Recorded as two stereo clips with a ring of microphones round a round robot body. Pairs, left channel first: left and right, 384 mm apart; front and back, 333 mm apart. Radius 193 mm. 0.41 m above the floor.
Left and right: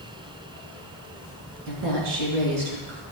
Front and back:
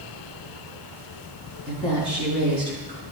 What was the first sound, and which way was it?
A woman speaking, 80° right.